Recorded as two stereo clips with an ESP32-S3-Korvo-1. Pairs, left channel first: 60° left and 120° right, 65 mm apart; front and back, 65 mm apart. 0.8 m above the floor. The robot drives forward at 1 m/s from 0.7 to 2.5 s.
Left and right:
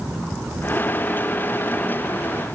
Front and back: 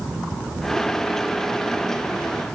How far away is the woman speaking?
I don't hear a woman speaking.